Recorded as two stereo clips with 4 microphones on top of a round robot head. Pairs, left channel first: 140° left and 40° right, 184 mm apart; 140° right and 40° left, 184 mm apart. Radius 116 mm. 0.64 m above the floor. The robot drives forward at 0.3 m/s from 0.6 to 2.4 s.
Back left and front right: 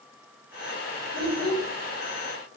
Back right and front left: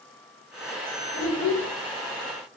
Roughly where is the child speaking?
Behind.